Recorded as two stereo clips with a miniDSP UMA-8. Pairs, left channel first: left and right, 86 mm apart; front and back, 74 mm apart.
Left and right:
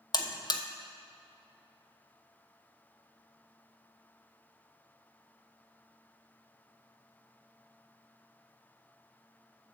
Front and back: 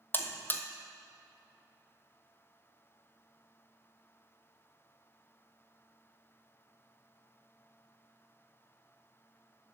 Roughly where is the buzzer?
Ahead left.